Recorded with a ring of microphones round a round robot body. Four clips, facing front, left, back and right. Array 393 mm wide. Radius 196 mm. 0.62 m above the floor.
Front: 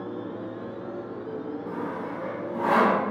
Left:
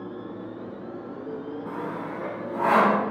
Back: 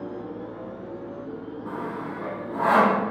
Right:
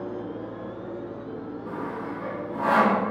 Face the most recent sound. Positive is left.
turn(degrees=150)